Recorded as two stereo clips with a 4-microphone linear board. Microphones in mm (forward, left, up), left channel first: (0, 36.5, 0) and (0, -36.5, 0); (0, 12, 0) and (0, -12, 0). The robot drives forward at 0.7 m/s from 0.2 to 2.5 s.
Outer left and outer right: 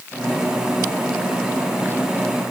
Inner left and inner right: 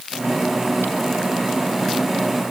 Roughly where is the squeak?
No squeak in this recording.